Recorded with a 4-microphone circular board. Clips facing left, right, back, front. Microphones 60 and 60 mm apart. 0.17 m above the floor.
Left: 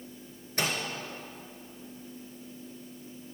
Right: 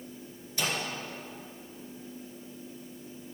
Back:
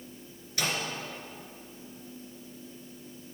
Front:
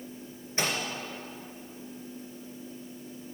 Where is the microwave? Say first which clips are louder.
Left 1 dB, front 1 dB; 55° left, 2 m.